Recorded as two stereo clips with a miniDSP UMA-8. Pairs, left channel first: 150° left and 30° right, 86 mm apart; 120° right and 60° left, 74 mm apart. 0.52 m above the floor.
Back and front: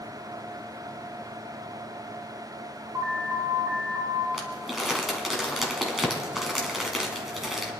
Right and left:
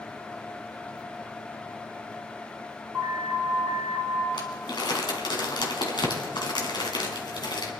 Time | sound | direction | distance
2.9 | an alarm | 25° right | 4.5 m
4.3 | crumpling | 115° right | 2 m